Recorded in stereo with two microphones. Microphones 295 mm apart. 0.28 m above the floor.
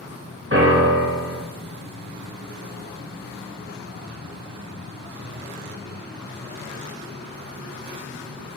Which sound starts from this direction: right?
A piano, at 0.5 s.